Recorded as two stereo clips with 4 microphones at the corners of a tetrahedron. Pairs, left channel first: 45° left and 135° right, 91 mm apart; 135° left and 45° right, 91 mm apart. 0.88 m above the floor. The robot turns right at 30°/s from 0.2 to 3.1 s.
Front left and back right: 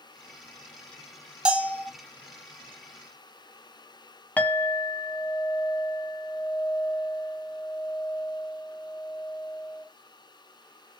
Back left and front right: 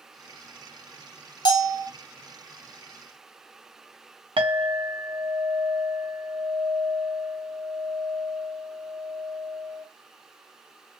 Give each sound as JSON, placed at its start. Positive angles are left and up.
{"t": 1.4, "sound": "a bell", "azimuth_deg": 145, "distance_m": 0.6}
{"t": 4.4, "sound": "a clink", "azimuth_deg": -25, "distance_m": 0.7}